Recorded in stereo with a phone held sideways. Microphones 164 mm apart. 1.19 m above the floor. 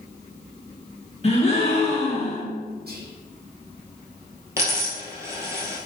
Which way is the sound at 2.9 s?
70° right (ahead or behind).